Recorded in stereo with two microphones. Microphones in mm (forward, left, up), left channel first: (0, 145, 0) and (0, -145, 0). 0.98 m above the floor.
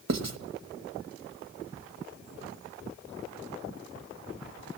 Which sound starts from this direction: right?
Writing, at 0.1 s.